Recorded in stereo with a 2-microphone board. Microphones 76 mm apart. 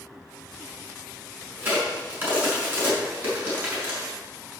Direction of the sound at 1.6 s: 25° right (ahead or behind).